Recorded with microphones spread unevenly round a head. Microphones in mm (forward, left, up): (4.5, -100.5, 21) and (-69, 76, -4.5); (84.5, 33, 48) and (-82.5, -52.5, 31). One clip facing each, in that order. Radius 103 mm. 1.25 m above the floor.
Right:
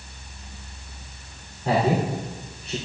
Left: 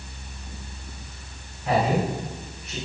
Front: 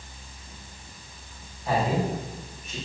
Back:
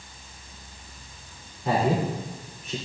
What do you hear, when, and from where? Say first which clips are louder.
1.6 s a man speaking: right 1 dB, back 2 dB; 120° right, 3.5 m; by 2.8 s 125° right, 3.5 m